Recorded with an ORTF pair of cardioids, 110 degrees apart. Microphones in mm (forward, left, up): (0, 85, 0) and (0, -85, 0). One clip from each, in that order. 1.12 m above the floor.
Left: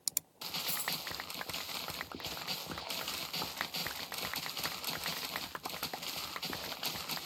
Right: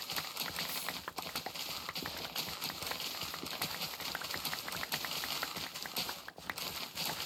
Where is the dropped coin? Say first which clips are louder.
Left 2 dB; 55° left, 6 m.